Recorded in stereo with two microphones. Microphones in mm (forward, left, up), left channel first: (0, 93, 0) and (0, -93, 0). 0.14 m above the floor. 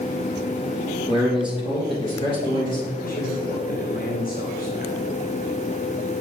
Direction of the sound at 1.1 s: 25° left (ahead or behind).